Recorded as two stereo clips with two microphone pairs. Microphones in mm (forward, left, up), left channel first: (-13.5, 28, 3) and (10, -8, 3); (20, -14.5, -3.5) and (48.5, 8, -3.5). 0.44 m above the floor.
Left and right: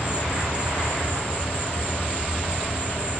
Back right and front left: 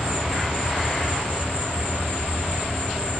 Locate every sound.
0.0 s an insect: 140° left, 2 m